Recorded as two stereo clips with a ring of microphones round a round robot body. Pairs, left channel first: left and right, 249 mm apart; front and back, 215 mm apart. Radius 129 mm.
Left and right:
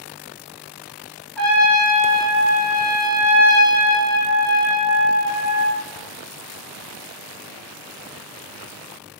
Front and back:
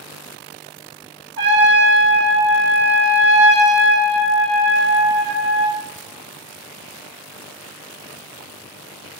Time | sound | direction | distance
1.4 | a trumpet | 175° left | 0.8 m